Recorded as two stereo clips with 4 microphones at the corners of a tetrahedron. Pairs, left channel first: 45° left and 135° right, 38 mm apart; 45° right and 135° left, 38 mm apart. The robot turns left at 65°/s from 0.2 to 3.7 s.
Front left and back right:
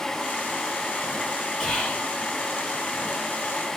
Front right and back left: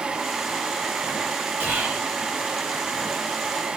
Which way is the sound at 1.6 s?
115° left.